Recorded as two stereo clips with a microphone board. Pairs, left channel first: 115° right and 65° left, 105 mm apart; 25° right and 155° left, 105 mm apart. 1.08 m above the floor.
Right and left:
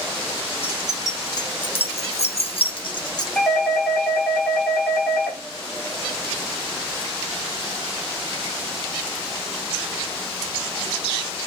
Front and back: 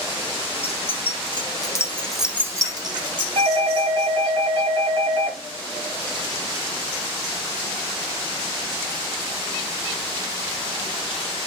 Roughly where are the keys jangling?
Ahead right.